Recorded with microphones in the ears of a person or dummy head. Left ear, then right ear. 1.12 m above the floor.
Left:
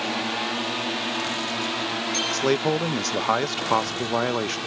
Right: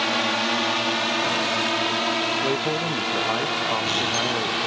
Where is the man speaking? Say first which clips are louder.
Left 1 dB; 70° left (ahead or behind).